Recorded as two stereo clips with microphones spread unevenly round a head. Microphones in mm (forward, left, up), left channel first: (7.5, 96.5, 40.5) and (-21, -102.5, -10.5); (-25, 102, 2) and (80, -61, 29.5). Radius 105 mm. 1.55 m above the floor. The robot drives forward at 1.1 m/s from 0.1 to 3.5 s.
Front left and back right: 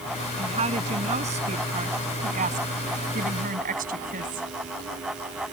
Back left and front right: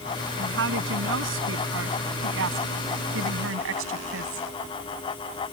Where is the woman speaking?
35° right; by 4.5 s 45° right.